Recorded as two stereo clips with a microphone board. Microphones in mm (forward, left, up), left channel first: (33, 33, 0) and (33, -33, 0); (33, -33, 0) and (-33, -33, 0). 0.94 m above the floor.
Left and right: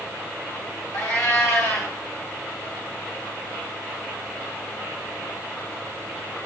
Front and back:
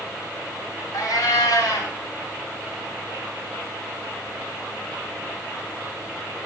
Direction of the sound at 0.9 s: 35° left.